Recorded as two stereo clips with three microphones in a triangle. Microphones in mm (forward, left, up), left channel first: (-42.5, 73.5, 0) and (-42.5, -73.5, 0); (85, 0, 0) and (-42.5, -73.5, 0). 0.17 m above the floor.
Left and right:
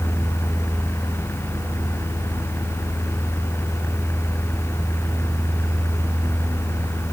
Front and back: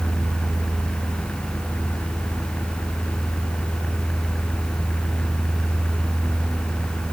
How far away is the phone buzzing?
I don't hear a phone buzzing.